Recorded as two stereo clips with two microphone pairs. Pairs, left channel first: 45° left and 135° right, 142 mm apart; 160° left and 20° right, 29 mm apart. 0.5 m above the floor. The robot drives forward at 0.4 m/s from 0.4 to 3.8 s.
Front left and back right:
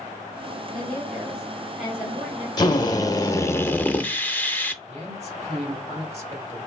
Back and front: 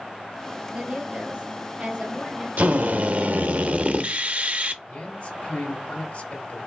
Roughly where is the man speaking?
Behind.